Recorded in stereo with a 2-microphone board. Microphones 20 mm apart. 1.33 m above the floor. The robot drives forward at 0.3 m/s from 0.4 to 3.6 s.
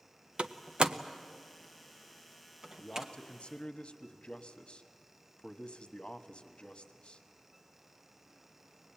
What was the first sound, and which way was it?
A door slam, 70° right (ahead or behind).